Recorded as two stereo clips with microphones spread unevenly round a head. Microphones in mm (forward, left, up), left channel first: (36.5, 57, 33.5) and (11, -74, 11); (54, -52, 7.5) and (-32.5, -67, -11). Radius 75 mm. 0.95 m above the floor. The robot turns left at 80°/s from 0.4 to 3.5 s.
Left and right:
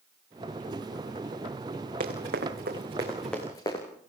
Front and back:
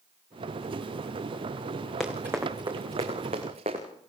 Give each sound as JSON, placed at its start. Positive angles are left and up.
{"t": 2.0, "sound": "running footsteps", "azimuth_deg": -75, "distance_m": 5.0}